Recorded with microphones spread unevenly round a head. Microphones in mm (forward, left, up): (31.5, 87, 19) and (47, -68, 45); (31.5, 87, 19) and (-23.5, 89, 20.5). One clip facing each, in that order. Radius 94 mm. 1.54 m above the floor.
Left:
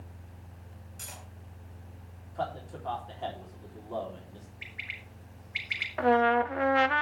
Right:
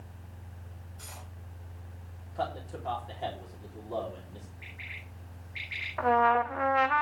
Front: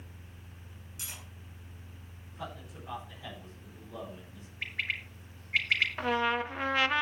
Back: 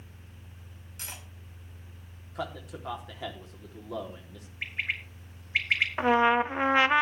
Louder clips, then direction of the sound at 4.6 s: Even, back 2 dB; 115° left.